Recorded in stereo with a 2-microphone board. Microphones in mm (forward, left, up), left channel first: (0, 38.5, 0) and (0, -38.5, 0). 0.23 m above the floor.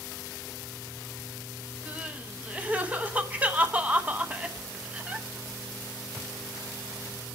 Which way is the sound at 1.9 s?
20° right (ahead or behind).